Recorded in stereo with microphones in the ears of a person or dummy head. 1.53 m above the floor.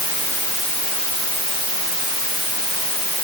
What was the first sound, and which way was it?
Only background noise.